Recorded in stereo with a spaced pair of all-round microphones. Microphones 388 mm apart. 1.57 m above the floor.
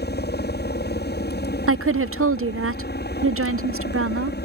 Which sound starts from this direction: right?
A woman speaking, at 1.7 s.